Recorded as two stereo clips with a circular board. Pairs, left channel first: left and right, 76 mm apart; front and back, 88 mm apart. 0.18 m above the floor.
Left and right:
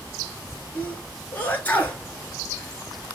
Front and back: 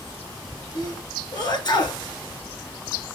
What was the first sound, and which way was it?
A sneeze, 25° left.